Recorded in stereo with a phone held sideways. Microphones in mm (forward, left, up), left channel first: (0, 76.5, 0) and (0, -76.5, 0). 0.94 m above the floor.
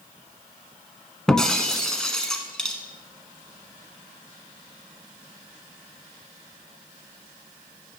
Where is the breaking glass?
5° left (ahead or behind), 1.0 m.